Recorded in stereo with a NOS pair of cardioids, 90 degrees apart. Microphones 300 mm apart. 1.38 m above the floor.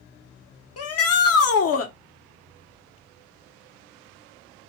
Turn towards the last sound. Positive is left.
turn(degrees=55)